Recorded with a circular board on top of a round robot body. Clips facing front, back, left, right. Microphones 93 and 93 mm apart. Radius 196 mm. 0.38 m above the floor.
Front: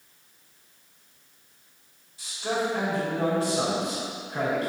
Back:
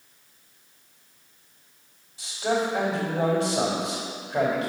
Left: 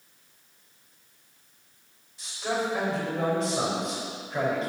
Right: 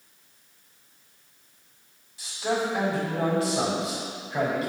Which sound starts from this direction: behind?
A man speaking, at 2.2 s.